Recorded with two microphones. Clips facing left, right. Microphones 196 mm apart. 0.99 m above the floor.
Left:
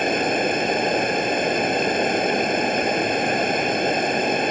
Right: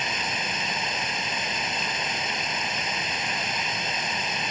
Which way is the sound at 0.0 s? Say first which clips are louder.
Left 13 dB; 55° left (ahead or behind).